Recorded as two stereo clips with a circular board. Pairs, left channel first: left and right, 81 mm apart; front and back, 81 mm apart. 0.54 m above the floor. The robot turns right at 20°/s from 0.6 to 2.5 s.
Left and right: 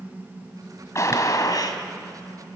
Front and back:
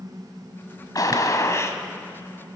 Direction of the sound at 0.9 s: 40° left.